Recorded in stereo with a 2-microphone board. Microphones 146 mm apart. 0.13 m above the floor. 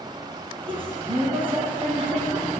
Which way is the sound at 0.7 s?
40° right (ahead or behind).